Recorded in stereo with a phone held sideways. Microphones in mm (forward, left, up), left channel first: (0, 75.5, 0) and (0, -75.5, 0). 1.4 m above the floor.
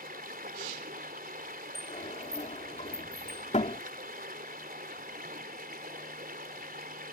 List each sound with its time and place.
0.0 s running water: 85° right
1.8 s a sliding door: 50° left (ahead or behind)